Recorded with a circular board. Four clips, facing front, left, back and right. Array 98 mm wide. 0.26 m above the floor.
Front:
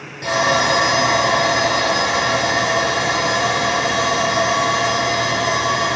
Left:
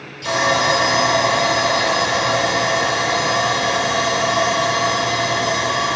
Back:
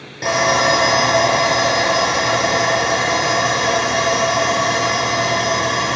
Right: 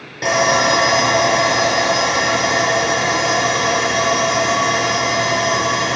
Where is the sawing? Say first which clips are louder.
Right 2 dB, back 1 dB; 115° right, 6.5 m.